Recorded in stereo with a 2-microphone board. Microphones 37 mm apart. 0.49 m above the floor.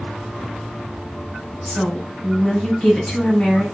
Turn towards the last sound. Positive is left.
turn(degrees=30)  # may be behind; listen again after turning